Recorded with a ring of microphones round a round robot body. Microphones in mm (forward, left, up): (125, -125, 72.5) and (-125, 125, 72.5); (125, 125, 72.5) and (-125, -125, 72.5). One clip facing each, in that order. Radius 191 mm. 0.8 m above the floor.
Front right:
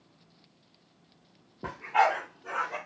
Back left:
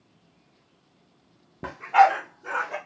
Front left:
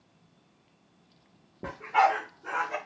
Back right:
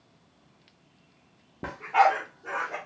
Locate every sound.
1.6 s a dog barking: 170° left, 0.5 m; by 2.8 s 105° left, 1.0 m